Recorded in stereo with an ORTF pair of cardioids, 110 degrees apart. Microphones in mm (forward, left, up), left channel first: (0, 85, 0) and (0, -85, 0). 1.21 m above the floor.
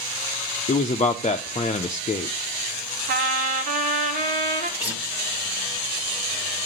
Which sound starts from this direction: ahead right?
A trumpet, at 3.1 s.